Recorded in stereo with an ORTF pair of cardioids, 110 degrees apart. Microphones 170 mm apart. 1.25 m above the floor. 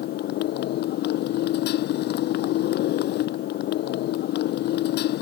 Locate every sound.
0.0 s a motorcycle: 70° left